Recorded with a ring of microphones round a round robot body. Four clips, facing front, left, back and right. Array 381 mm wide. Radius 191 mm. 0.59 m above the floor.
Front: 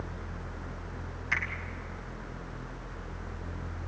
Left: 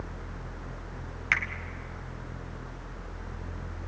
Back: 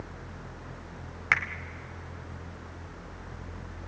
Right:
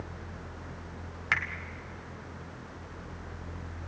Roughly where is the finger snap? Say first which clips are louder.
Left 1 dB, back 5 dB; behind.